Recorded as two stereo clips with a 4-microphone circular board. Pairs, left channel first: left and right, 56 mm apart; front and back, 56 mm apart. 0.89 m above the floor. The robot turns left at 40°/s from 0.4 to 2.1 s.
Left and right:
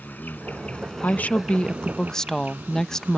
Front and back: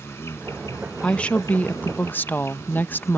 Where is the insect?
35° left; by 3.2 s 30° right.